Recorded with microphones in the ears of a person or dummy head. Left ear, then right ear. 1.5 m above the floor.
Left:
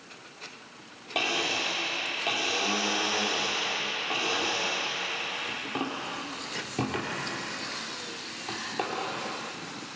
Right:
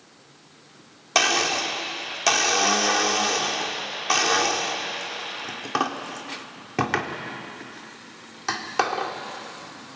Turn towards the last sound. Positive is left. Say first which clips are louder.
# right 7 dB
turn(degrees=-55)  # may be behind; listen again after turning